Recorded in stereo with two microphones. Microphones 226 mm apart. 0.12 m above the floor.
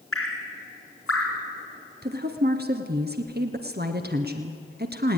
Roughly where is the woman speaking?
Right.